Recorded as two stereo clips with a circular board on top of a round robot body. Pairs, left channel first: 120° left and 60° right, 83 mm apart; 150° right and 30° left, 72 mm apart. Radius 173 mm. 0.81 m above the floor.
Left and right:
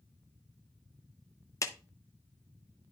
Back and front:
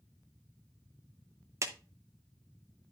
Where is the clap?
70° left, 1.0 m.